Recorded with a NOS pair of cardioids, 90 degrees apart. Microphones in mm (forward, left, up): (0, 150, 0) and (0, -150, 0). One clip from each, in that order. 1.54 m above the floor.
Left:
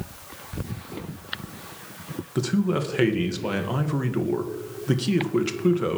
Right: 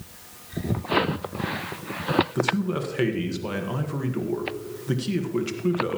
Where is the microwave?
No microwave in this recording.